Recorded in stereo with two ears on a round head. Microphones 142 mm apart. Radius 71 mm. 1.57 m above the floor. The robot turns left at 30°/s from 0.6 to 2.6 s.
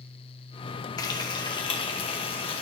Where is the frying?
25° left (ahead or behind), 1.2 m; by 2.6 s 35° left (ahead or behind), 1.2 m.